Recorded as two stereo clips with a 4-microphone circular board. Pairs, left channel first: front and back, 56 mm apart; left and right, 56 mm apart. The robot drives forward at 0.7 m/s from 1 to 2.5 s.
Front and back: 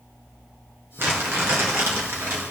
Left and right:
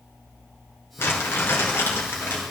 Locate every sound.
1.0 s crumpling: 135° left, 4 m; by 2.4 s 140° left, 4.5 m